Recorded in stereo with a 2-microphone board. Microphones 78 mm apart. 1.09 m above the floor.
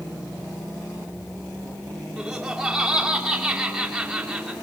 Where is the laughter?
5° right (ahead or behind), 2.5 m.